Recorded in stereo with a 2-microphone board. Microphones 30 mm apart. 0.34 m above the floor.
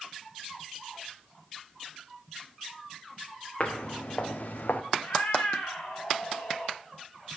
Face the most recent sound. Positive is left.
turn(degrees=50)  # may be behind; listen again after turning